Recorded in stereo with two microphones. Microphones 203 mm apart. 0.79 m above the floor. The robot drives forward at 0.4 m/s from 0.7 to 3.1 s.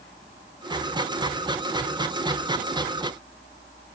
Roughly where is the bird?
I don't hear a bird.